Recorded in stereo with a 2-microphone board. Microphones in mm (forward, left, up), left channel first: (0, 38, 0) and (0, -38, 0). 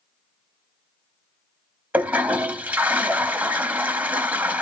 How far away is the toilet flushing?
About 0.6 m.